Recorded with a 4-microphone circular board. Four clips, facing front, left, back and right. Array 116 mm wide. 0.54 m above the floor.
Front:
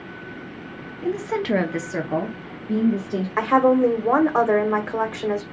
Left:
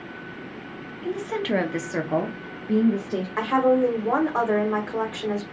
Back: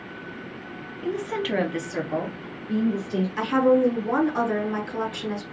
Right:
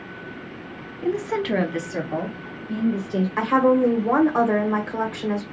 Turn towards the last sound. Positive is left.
turn(degrees=-5)